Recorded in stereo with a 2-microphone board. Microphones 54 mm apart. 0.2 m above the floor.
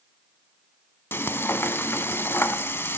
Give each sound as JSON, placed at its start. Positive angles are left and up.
{"t": 1.1, "sound": "frying", "side_deg": 45, "distance_m": 0.8}